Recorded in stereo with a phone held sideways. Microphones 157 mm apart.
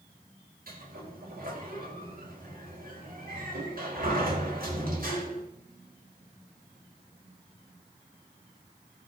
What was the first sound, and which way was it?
A sliding door, 65° right (ahead or behind).